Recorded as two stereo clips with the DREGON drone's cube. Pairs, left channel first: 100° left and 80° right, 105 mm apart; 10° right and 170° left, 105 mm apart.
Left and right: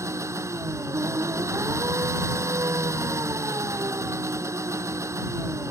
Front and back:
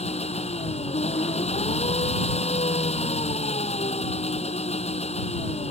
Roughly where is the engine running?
Ahead.